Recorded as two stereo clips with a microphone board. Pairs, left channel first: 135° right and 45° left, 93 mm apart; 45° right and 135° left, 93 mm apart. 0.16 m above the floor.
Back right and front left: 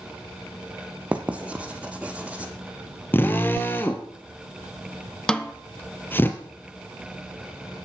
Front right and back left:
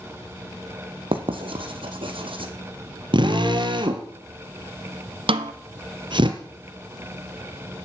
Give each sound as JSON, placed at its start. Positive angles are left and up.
{"t": 1.1, "sound": "writing", "azimuth_deg": 120, "distance_m": 2.0}
{"t": 3.1, "sound": "a drill", "azimuth_deg": 160, "distance_m": 1.7}
{"t": 5.3, "sound": "a snare drum", "azimuth_deg": 145, "distance_m": 1.0}